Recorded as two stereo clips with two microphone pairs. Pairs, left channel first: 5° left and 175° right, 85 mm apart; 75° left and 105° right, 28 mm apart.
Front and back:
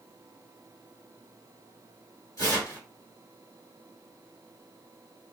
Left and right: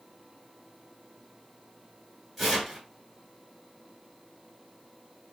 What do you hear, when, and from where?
2.4 s tearing paper: 10° right, 1.4 m